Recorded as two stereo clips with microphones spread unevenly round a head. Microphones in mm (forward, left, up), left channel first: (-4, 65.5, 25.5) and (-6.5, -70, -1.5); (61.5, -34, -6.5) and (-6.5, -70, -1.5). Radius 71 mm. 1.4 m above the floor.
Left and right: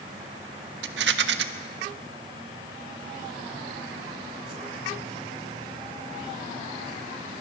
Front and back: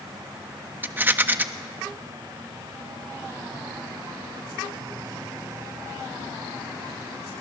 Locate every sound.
0.8 s a rattle: 90° right, 1.2 m